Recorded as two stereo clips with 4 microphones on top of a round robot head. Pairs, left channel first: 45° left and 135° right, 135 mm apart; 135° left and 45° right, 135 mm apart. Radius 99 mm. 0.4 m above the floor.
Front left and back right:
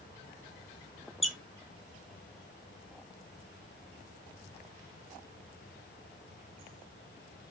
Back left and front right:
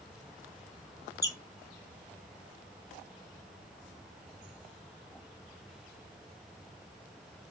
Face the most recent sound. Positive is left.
turn(degrees=145)